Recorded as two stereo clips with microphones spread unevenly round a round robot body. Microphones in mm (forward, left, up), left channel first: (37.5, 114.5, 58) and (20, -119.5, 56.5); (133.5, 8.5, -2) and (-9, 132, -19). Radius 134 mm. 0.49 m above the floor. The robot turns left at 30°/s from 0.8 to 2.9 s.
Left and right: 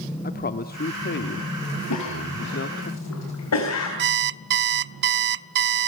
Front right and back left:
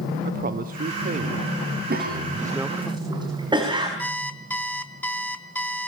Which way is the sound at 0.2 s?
125° left.